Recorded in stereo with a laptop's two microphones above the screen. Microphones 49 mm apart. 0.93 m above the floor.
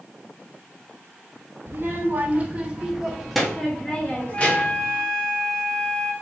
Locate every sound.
1.7 s a child speaking: 55° right (ahead or behind), 1.2 m; by 4.9 s 40° left (ahead or behind), 1.4 m
4.3 s a flute: 75° left (ahead or behind), 2.5 m